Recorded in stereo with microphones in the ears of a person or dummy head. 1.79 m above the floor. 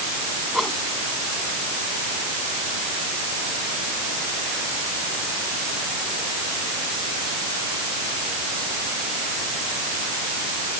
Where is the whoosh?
5° right (ahead or behind).